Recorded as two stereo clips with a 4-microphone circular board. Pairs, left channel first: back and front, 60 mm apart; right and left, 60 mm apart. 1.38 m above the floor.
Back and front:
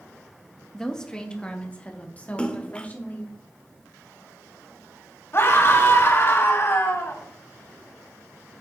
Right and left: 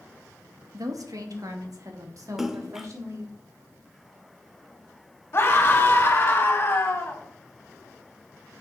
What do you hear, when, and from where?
0.7 s a woman speaking: 95° left, 1.5 m; by 3.3 s 120° left, 3 m
2.4 s a splash: 160° left, 1.0 m
5.3 s a scream: 140° right, 3 m